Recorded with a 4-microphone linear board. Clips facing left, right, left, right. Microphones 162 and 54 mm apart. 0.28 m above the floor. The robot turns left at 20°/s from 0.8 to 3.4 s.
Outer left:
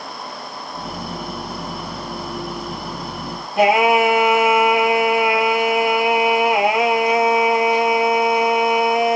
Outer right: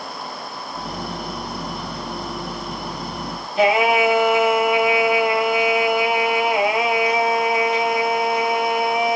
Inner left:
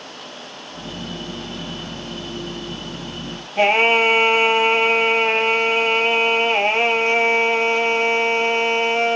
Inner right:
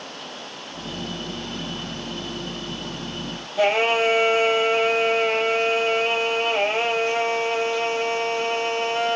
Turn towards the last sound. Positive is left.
turn(degrees=70)  # may be behind; listen again after turning